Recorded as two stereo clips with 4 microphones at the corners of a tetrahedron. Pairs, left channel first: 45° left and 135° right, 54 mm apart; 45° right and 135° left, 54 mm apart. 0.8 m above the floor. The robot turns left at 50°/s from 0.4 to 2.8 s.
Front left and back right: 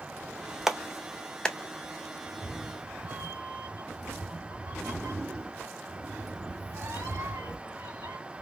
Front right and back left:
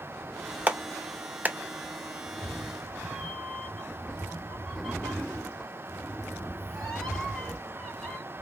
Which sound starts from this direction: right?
A cat meowing, at 2.3 s.